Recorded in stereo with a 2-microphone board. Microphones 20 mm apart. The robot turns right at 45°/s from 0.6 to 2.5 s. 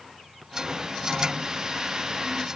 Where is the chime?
I don't hear a chime.